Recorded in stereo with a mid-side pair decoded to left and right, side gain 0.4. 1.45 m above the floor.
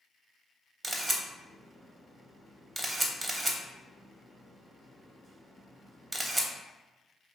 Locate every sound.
0.8 s a camera shutter: 25° right, 0.7 m